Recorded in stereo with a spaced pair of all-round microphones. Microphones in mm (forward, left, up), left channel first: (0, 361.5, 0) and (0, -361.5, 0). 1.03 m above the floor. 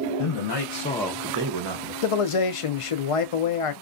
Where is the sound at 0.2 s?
50° left (ahead or behind), 0.9 m; by 1.9 s 50° right (ahead or behind), 0.9 m.